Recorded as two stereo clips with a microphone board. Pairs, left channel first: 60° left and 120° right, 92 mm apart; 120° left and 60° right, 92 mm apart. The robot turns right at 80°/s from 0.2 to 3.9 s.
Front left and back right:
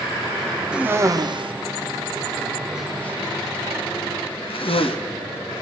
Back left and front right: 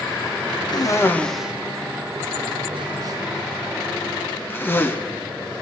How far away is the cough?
About 0.6 m.